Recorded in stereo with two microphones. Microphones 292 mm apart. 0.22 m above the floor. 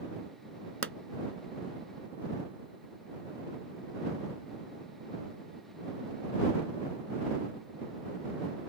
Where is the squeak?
I don't hear a squeak.